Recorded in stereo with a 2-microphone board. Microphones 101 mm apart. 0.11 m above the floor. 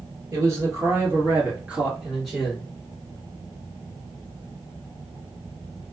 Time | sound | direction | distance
0.3 | a man speaking | 35° right (ahead or behind) | 1.9 m